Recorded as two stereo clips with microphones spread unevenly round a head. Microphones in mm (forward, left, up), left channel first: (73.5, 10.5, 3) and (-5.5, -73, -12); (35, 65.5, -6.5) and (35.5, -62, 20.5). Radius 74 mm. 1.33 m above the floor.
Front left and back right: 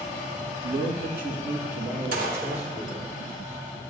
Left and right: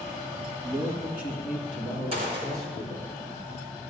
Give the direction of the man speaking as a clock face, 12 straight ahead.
5 o'clock.